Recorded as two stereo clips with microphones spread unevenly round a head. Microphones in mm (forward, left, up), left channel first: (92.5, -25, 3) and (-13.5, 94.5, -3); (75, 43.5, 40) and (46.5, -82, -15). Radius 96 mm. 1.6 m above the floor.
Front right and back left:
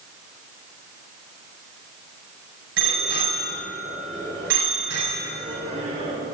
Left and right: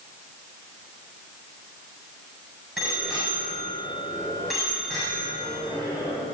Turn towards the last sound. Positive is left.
turn(degrees=165)